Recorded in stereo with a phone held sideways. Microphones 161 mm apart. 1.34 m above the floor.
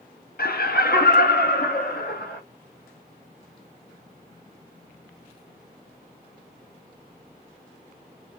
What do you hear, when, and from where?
0.4 s laughter: 70° left (ahead or behind), 0.7 m; by 2.4 s 75° left (ahead or behind), 1.8 m